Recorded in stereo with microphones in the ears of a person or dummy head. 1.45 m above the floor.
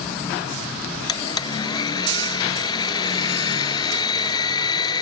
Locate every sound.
1.1 s a blender: 25° left (ahead or behind)